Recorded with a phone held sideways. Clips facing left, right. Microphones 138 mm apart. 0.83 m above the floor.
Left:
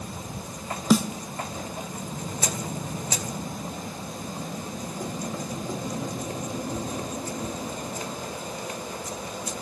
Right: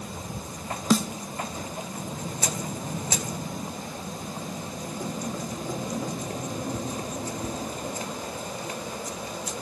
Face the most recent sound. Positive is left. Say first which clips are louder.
# left 2 dB
turn(degrees=10)  # may be behind; listen again after turning